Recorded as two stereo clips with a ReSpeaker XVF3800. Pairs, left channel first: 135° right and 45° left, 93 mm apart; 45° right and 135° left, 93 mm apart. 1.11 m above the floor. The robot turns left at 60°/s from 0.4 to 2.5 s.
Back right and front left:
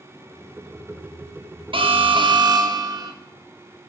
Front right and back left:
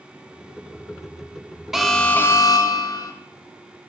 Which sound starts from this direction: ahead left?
An alarm, at 1.7 s.